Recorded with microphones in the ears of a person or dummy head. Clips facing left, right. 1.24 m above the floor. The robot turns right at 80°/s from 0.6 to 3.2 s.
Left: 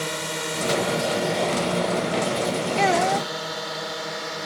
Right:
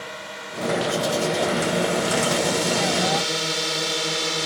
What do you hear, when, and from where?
0.0 s a drone: 60° left (ahead or behind); by 4.5 s 50° right (ahead or behind)
2.8 s a child speaking: 95° left; by 3.3 s 130° left